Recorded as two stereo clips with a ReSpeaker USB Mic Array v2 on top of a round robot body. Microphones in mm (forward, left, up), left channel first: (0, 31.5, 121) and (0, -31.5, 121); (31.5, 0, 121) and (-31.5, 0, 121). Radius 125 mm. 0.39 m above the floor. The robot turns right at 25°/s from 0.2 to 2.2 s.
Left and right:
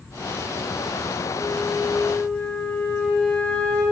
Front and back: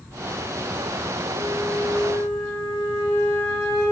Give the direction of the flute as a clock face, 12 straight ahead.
12 o'clock.